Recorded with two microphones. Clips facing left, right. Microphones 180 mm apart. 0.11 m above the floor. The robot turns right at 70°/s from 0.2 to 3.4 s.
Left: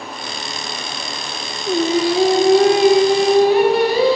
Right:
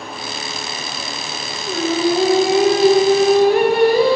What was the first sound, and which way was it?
Singing, 140° left.